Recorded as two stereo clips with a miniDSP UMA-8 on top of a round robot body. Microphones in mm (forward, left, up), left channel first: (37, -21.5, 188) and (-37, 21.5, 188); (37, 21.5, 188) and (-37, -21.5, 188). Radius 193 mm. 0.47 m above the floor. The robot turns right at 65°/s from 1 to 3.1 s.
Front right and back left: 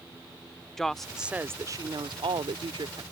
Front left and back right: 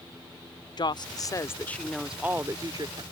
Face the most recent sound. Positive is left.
turn(degrees=-165)